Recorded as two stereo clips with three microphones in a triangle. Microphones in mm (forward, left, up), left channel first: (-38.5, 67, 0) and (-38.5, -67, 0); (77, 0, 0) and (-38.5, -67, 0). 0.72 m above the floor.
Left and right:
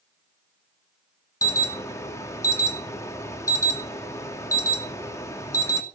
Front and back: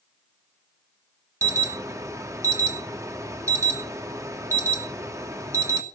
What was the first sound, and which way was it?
An alarm, 150° left.